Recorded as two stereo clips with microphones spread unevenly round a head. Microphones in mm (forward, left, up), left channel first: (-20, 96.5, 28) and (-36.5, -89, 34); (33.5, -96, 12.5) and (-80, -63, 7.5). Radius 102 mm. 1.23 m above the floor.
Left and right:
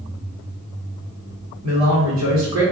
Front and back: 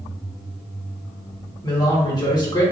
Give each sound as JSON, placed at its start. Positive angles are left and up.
{"t": 1.6, "sound": "a man speaking", "azimuth_deg": -70, "distance_m": 1.6}